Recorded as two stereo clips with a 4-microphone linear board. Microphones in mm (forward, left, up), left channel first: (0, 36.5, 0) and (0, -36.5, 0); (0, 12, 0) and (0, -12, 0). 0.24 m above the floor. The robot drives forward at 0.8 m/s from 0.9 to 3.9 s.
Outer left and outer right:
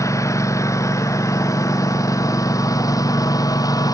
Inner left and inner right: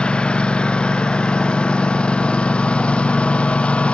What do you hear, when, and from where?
0.0 s a lawn mower: 45° left (ahead or behind); by 4.0 s 55° left (ahead or behind)